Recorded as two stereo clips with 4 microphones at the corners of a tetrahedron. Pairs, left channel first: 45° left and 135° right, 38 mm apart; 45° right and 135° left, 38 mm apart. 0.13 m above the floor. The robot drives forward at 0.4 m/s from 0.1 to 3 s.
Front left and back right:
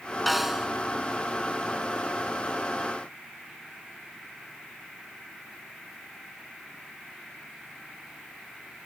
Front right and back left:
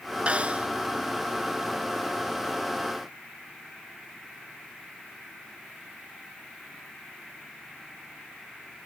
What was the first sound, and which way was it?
A snare drum, 135° left.